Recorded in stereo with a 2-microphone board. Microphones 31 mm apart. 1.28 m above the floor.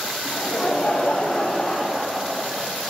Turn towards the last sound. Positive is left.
turn(degrees=0)  # may be behind; listen again after turning